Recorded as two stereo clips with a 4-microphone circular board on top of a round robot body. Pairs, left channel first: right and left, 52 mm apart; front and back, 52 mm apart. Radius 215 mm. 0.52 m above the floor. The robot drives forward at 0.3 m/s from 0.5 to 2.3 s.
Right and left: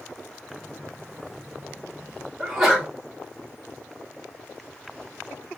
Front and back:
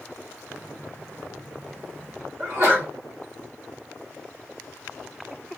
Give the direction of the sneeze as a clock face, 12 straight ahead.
6 o'clock.